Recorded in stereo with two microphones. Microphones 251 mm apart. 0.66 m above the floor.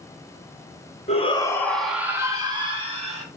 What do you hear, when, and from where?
1.1 s a shout: 25° left (ahead or behind), 0.8 m; by 3.2 s 25° right (ahead or behind), 1.5 m